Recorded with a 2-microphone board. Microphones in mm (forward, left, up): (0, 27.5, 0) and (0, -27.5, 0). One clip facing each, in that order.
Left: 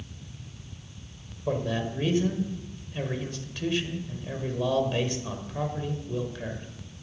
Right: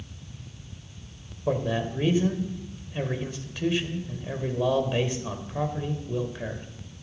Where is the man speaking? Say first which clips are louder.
Right 2 dB; 15° right (ahead or behind), 1.3 m.